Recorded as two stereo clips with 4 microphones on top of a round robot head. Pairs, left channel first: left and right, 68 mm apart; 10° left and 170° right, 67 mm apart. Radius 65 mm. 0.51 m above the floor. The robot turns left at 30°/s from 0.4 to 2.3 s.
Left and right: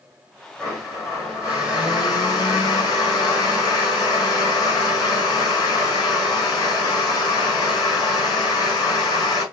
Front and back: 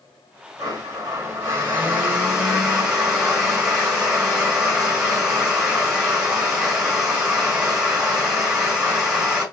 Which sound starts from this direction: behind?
A blender, at 0.6 s.